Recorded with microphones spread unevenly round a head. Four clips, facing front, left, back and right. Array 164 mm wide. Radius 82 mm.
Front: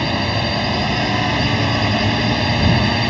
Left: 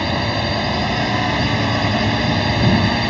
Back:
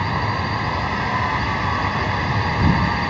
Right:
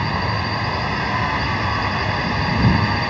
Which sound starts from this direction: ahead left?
A drone, at 0.0 s.